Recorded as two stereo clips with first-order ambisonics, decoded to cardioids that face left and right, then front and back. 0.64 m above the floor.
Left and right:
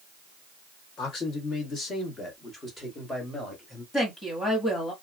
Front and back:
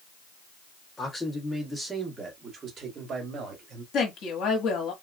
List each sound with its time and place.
1.0 s a man speaking: 75° left, 1.4 m; by 3.8 s 175° left, 1.5 m
3.9 s a woman speaking: 20° left, 1.3 m